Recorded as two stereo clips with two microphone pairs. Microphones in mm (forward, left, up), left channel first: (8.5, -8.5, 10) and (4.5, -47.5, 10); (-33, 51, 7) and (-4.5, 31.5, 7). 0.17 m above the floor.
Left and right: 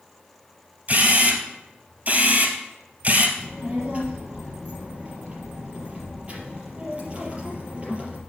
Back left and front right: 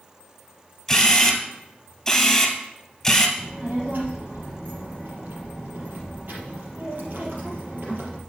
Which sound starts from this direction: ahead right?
A child speaking, at 3.4 s.